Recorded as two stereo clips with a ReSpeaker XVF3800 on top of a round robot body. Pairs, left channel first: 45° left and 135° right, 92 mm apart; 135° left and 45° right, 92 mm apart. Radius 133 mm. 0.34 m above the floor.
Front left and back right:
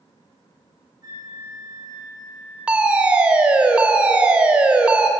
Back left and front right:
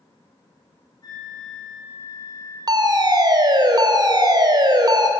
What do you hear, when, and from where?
1.0 s a flute: 175° left, 7.5 m
2.7 s a fire alarm: 60° right, 3.5 m